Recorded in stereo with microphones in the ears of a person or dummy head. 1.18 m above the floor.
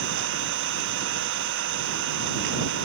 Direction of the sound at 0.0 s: 70° right (ahead or behind).